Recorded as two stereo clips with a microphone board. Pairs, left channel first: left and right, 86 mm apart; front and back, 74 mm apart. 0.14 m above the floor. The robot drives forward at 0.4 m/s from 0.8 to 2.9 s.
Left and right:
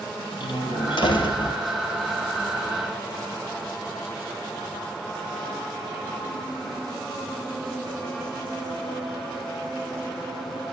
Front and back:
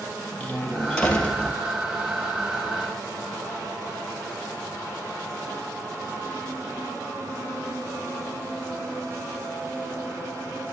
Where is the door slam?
75° left, 2.5 m; by 1.6 s 85° left, 2.5 m.